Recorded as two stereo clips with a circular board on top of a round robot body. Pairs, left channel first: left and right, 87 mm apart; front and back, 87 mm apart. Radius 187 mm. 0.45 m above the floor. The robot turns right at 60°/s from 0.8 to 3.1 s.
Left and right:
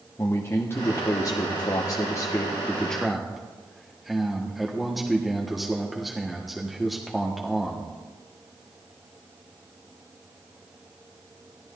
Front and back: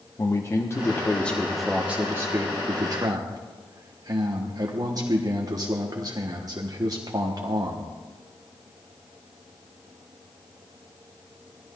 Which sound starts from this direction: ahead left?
A man speaking, at 0.2 s.